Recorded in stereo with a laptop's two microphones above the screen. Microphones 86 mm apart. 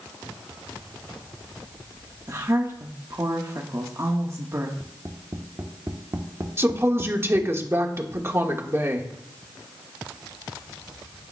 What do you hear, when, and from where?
2.3 s a woman speaking: 35° right (ahead or behind), 1.2 m
4.8 s tapping: 40° right (ahead or behind), 1.0 m
6.6 s a woman speaking: 30° right (ahead or behind), 1.3 m